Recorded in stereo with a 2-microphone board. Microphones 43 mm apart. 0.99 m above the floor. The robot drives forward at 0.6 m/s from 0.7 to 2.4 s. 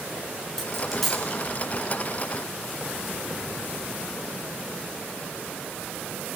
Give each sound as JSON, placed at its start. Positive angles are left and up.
{"t": 0.6, "sound": "a dropped coin", "side_deg": 0, "distance_m": 4.5}